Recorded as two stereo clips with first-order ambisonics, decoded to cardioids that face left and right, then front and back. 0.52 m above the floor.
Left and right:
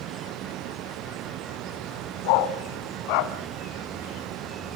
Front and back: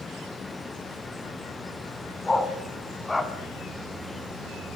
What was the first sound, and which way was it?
A dog barking, 80° left.